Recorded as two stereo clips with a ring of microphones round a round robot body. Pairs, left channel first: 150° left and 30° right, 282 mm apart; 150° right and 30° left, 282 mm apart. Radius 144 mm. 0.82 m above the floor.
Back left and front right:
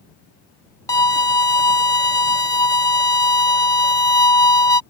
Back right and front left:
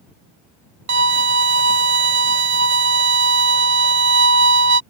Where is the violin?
75° left.